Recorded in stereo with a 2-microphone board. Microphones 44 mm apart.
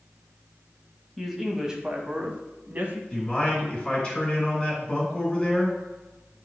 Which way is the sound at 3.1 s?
20° left (ahead or behind).